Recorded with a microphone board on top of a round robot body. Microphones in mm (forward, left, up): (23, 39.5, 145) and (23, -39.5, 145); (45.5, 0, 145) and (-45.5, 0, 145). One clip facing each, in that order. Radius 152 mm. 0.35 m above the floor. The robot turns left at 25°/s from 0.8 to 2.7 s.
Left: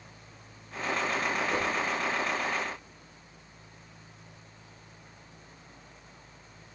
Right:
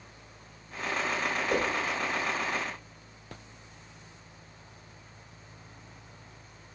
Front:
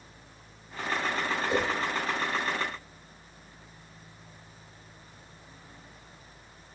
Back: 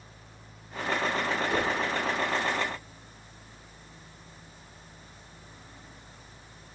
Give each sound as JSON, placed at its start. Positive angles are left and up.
{"t": 1.5, "sound": "a whoosh", "azimuth_deg": -65, "distance_m": 1.8}